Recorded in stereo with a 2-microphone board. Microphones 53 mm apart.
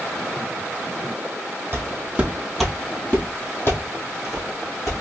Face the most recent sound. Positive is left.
turn(degrees=65)  # may be behind; listen again after turning